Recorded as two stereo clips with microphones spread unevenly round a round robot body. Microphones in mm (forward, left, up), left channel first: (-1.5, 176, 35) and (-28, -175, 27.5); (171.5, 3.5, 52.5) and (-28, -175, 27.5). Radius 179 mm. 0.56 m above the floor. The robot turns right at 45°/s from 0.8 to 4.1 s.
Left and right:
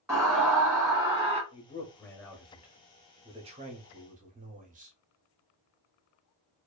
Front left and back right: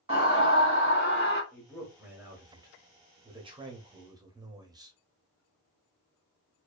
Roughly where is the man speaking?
Behind left.